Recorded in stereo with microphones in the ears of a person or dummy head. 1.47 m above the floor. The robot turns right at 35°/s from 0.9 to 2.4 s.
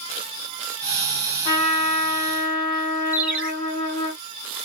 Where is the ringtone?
10° right (ahead or behind), 1.2 m.